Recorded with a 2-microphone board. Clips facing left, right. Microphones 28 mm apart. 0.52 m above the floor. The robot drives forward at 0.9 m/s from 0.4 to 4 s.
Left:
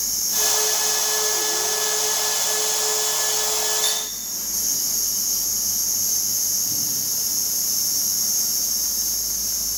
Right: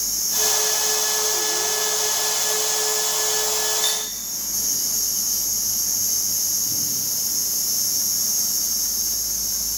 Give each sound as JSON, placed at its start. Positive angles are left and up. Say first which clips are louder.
{"t": 3.8, "sound": "cutlery clinking", "louder": "even", "side_deg": -5, "distance_m": 4.5}